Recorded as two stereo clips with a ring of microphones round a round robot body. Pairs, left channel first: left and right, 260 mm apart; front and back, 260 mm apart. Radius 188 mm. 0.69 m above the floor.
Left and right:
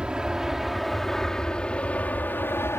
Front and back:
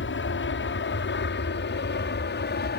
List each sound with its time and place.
0.0 s an aircraft: 5° right; by 2.8 s 15° left